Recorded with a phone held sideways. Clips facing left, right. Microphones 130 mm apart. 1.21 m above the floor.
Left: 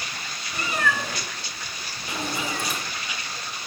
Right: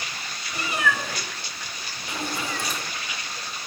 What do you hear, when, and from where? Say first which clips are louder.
0.5 s a cat meowing: even; 10° right (ahead or behind), 2.5 m; by 2.8 s 10° left (ahead or behind), 1.2 m